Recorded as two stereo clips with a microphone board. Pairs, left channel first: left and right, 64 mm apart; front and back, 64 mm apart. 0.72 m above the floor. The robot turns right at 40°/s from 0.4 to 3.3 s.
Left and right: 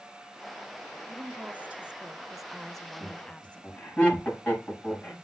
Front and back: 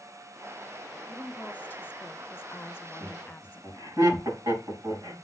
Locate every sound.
1.1 s a woman speaking: 60° right, 0.5 m; by 4.0 s 30° left, 0.5 m
3.0 s laughter: 150° left, 6 m; by 5.1 s 160° left, 6 m